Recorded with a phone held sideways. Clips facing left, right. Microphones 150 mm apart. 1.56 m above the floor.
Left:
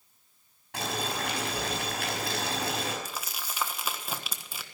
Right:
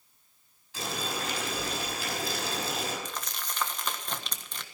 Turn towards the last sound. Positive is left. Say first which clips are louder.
# even
turn(degrees=10)  # may be behind; listen again after turning